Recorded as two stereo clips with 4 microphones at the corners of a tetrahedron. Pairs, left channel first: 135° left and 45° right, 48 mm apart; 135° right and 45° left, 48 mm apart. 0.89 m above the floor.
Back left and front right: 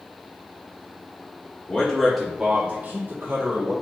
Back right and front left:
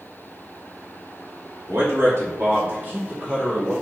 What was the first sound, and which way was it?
A man speaking, 75° left.